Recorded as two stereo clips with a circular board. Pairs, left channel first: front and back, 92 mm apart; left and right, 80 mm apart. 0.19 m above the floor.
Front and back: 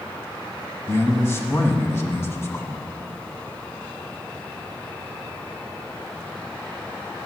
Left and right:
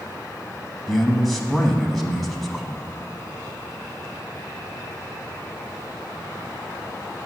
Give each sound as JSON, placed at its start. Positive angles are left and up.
{"t": 0.9, "sound": "a man speaking", "azimuth_deg": 10, "distance_m": 1.1}